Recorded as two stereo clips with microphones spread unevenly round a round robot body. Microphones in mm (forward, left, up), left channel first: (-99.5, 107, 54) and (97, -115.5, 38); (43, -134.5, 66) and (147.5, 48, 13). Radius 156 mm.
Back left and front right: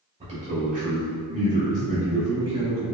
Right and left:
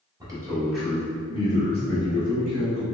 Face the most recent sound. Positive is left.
turn(degrees=-115)